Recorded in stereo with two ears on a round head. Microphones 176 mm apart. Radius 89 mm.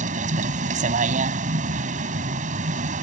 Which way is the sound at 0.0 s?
40° right (ahead or behind).